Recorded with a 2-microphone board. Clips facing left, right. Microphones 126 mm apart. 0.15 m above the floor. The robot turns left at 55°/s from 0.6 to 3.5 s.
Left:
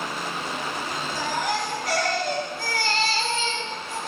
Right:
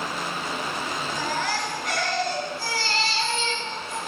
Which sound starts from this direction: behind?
A baby crying, at 1.1 s.